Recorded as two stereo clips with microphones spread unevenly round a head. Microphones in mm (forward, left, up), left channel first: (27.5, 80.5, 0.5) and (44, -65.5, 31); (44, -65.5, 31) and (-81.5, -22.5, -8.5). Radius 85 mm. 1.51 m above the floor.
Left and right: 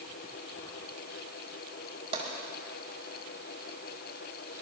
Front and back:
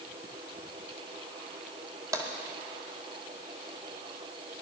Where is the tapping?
125° right, 2 m.